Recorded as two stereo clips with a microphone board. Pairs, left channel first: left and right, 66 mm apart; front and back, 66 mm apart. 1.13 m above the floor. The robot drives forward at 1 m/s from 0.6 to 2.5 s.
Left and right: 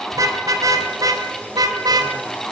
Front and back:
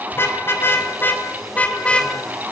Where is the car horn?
55° right, 4 m; by 2.1 s 75° right, 3.5 m.